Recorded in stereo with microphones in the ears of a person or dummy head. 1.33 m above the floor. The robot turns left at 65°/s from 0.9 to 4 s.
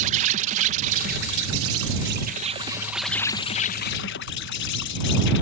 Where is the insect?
40° right; by 5.4 s 115° left.